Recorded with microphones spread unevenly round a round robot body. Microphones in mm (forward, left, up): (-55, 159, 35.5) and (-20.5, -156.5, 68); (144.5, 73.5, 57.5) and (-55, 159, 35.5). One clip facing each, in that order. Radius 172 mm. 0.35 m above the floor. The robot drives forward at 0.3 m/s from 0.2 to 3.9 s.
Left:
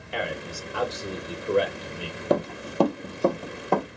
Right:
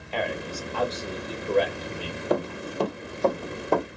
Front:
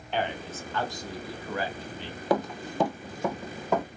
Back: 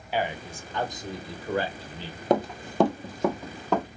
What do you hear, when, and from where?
0.1 s a man speaking: 100° left, 0.9 m; by 2.2 s 155° left, 1.1 m
2.3 s running footsteps: 85° left, 0.8 m; by 3.9 s 170° right, 1.4 m